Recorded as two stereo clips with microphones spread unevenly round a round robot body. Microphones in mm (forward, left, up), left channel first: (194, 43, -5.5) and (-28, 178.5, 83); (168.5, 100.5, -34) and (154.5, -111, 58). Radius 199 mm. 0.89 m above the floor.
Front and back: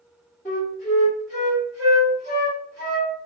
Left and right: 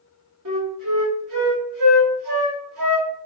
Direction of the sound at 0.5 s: 115° right.